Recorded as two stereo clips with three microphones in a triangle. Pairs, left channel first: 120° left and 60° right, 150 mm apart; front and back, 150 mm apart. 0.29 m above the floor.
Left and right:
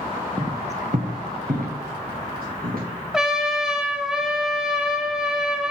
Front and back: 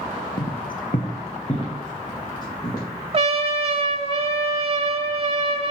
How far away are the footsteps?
About 0.8 m.